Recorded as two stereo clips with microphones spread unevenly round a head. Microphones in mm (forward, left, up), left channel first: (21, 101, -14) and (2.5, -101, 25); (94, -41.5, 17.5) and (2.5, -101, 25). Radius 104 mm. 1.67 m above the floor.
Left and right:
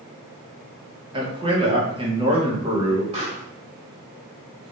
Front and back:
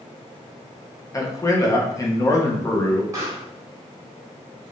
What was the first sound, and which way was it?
A man speaking, 30° right.